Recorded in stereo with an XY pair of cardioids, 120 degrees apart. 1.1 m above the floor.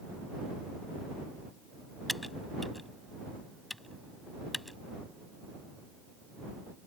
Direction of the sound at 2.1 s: 5° left.